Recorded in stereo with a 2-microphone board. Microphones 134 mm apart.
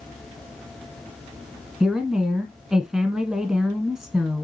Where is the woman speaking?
5° right (ahead or behind), 1.1 m.